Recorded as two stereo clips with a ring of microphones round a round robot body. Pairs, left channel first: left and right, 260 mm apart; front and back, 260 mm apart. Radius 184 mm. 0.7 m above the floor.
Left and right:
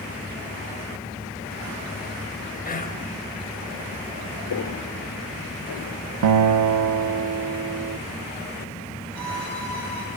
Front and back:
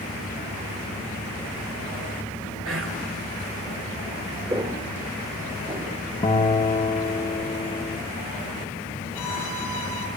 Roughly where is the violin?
Ahead right.